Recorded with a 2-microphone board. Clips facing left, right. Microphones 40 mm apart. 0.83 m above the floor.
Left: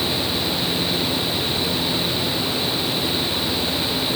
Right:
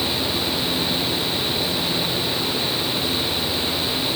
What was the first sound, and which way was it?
Only background noise.